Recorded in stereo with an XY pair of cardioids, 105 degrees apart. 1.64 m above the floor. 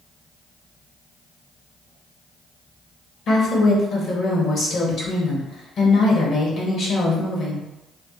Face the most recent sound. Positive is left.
turn(degrees=60)